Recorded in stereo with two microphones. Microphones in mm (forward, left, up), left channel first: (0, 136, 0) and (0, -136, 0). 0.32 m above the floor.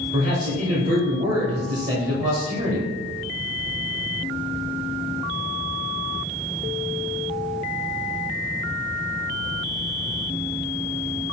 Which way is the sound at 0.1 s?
25° right (ahead or behind).